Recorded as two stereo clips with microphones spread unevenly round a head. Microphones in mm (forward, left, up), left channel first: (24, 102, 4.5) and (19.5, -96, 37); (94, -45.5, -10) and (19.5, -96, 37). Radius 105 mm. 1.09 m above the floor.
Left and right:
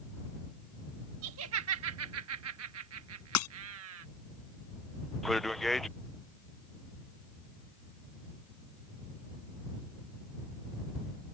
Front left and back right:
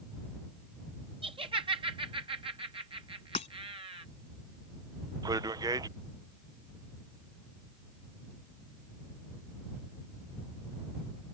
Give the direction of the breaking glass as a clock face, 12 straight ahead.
9 o'clock.